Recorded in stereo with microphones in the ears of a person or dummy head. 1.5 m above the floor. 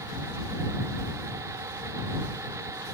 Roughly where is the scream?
No scream in this recording.